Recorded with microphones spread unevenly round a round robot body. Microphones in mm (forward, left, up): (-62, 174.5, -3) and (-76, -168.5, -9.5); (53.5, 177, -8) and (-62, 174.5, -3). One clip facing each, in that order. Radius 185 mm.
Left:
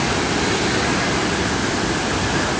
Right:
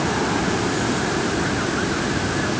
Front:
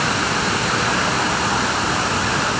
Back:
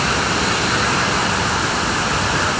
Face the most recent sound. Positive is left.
No sound to turn to.